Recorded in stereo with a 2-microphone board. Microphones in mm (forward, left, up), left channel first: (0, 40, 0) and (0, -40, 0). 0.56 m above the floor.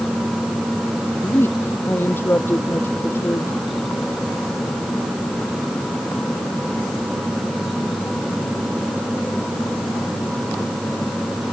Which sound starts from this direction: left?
A woman speaking, at 1.0 s.